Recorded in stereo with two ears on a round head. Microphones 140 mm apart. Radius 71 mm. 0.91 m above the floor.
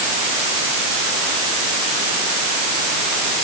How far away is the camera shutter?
No camera shutter in this recording.